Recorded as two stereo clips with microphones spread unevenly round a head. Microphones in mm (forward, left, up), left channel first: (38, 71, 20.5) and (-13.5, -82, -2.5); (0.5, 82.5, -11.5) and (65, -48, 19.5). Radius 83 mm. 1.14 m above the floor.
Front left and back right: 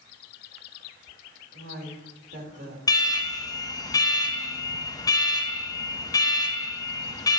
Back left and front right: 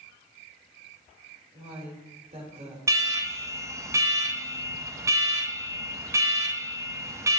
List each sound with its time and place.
1.5 s a woman speaking: 125° right, 2.5 m
2.9 s an alarm: 10° left, 0.6 m